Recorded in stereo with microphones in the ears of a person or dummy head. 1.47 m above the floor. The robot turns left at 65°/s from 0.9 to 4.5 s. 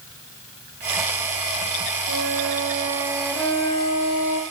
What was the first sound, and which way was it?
A flute, 105° right.